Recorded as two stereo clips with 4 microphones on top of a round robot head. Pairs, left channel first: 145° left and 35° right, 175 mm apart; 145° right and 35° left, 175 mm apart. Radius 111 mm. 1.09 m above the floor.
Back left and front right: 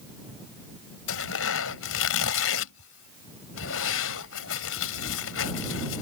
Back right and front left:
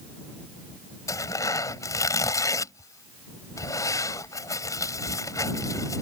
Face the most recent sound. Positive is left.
turn(degrees=140)